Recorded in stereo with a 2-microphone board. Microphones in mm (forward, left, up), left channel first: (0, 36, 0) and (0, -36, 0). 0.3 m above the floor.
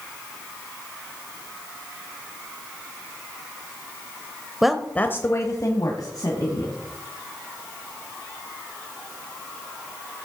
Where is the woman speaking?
5° right (ahead or behind), 0.9 m; by 6.7 s 70° left (ahead or behind), 2.5 m.